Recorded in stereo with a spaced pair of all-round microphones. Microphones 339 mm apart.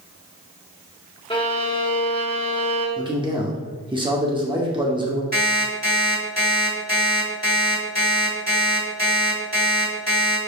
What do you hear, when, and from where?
1.3 s a violin: 15° left (ahead or behind), 0.8 m
3.0 s a man speaking: 15° right (ahead or behind), 0.7 m
5.3 s an alarm clock: 25° right (ahead or behind), 1.7 m